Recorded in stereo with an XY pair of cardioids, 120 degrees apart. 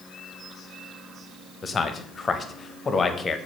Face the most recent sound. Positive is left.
turn(degrees=25)